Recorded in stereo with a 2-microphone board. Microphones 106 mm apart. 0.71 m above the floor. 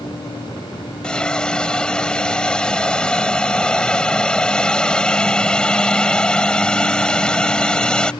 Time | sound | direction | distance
1.0 | a hiss | 10° left (ahead or behind) | ?